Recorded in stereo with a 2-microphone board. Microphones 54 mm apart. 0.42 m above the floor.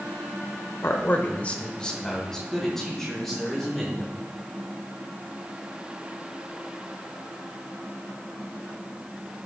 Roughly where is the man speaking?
Left.